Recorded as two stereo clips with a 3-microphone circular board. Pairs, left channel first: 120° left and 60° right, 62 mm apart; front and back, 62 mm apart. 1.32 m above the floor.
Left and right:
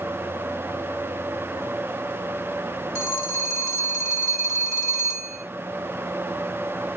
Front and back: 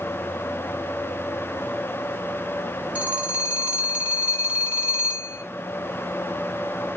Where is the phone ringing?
120° left, 1.5 m.